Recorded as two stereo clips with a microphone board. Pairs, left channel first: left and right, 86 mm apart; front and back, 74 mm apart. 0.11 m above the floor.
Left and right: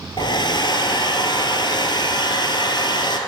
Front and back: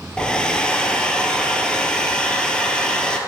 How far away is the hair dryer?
About 0.7 m.